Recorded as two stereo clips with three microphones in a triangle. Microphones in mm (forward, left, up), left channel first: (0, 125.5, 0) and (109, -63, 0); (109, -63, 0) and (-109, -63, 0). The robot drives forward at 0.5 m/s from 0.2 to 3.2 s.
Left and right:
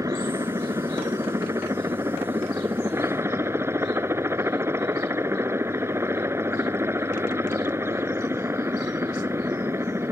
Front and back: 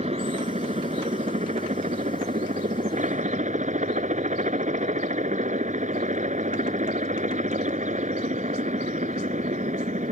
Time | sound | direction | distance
0.0 | a helicopter | 130° right | ?